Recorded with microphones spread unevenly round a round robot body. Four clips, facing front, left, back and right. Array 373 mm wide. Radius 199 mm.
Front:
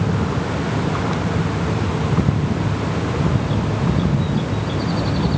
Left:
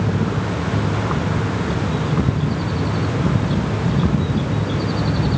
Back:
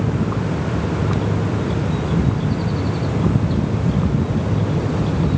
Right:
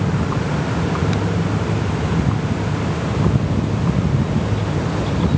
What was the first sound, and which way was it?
Only background noise.